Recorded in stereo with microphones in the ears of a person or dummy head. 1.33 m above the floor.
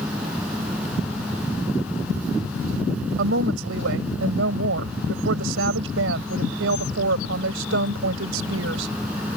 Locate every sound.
0.0 s a fan: 5° right (ahead or behind)
3.2 s a woman speaking: 80° right